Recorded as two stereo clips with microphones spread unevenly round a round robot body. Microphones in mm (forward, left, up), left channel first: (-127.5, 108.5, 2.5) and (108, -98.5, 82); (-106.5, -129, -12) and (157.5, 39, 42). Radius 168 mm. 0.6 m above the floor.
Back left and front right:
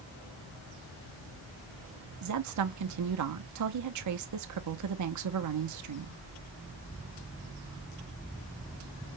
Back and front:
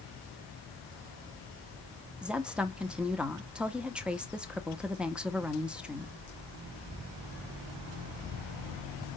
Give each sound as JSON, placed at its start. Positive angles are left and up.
{"t": 2.2, "sound": "a woman speaking", "azimuth_deg": -65, "distance_m": 1.0}